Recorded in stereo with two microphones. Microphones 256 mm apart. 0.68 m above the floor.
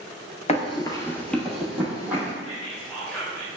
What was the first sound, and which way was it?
Running footsteps, 25° left (ahead or behind).